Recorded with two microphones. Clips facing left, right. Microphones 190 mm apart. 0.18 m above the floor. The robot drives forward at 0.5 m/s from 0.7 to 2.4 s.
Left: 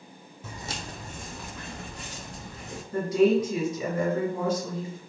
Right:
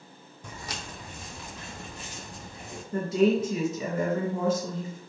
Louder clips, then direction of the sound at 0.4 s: Left 2 dB; 5° left (ahead or behind).